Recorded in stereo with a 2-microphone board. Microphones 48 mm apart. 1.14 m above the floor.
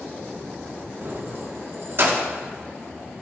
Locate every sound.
1.0 s keys jangling: 55° right (ahead or behind), 1.4 m